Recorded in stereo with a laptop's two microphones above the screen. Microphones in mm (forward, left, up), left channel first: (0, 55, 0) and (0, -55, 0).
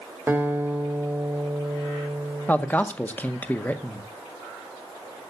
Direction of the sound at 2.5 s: 15° left (ahead or behind).